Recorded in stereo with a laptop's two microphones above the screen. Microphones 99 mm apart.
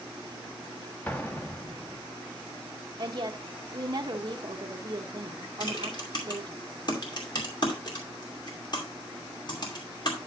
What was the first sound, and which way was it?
An explosion, 15° left (ahead or behind).